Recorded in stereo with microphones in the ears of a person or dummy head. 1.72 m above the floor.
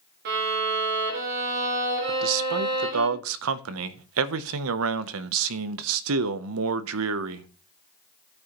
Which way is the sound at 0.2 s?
45° right (ahead or behind).